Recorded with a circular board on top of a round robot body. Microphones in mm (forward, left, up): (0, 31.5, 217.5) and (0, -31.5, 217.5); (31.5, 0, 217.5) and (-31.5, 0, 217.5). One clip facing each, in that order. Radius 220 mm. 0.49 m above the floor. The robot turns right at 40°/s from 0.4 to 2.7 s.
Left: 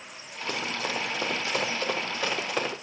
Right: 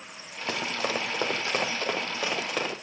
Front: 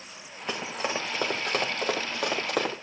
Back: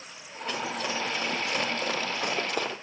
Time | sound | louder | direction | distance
0.5 | running footsteps | right 2 dB, even | 75° right | 4.5 m